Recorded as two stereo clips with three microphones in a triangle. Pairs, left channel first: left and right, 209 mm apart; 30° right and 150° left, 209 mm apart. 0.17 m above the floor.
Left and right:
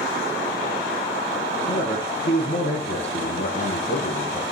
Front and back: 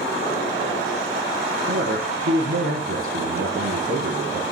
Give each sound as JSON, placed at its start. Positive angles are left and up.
{"t": 1.7, "sound": "a man speaking", "azimuth_deg": 130, "distance_m": 6.5}